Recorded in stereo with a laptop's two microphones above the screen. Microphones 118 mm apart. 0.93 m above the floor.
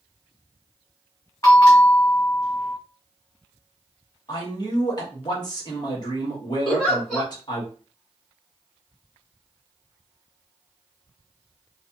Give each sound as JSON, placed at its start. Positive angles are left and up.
{"t": 1.4, "sound": "a bell", "side_deg": 25, "distance_m": 0.9}
{"t": 4.3, "sound": "a man speaking", "side_deg": 35, "distance_m": 1.0}
{"t": 6.7, "sound": "a giggle", "side_deg": 0, "distance_m": 1.4}